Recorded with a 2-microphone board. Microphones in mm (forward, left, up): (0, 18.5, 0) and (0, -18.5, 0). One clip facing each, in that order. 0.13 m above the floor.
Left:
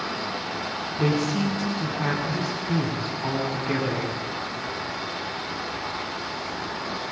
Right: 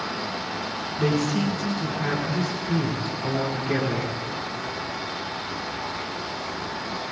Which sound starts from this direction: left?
A man speaking, at 1.0 s.